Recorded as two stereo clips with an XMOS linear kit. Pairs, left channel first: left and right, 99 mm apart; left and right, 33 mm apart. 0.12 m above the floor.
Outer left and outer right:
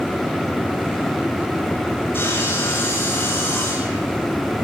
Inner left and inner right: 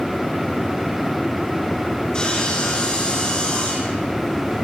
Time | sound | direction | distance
2.1 | sawing | 25° left (ahead or behind) | 7.5 m